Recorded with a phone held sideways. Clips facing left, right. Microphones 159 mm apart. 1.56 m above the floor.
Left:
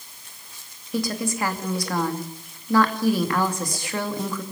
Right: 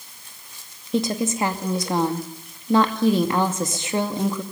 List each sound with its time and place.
0.9 s a woman speaking: 20° right (ahead or behind), 2.5 m